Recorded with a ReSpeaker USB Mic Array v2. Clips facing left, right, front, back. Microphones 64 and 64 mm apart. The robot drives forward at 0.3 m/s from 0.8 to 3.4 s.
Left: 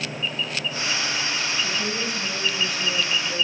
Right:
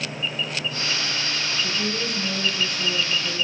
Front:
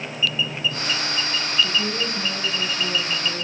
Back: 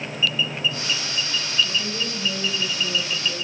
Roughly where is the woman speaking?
Ahead right.